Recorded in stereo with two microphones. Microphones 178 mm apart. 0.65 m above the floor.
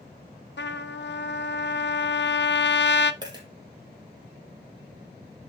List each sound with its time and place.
0.6 s a trumpet: 90° left, 0.6 m
3.2 s a dropped coin: 25° right (ahead or behind), 2.5 m